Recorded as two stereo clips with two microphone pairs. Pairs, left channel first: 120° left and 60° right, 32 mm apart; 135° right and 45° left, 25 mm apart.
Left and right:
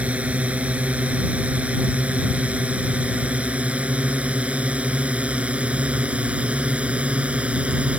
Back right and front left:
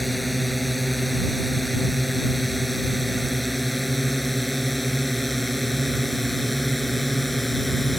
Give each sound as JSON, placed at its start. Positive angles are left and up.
{"t": 0.0, "sound": "a drone", "azimuth_deg": -50}